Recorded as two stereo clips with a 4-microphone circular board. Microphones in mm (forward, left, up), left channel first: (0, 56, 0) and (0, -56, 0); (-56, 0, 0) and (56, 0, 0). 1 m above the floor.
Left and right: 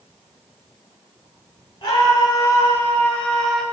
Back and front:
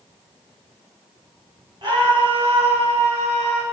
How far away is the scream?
About 2.5 m.